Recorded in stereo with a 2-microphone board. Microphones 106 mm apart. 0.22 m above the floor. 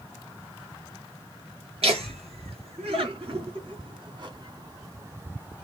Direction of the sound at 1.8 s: 70° right (ahead or behind).